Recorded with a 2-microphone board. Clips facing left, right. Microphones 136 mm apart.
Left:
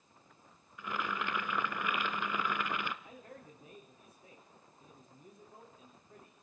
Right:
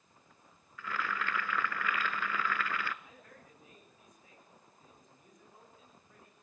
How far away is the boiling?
About 0.7 m.